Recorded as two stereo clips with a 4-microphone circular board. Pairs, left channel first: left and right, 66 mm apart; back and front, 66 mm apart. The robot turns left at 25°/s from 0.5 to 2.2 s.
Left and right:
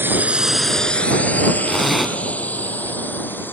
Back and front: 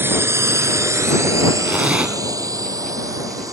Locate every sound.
0.0 s a drone: 45° right; by 3.5 s 30° left
1.6 s a zipper: 5° left; by 2.2 s 10° right